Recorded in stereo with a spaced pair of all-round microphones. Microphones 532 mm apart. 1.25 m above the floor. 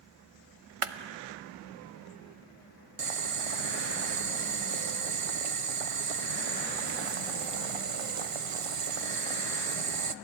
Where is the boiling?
70° right (ahead or behind), 0.8 m.